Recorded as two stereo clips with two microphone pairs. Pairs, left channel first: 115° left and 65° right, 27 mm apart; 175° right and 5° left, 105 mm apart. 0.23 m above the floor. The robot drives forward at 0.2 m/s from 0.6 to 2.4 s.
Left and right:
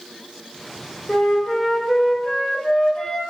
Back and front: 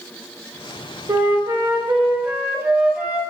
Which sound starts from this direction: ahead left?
A flute, at 1.1 s.